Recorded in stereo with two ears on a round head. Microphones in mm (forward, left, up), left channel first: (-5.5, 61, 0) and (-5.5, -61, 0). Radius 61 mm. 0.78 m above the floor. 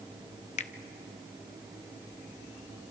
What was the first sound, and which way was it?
A finger snap, 50° left (ahead or behind).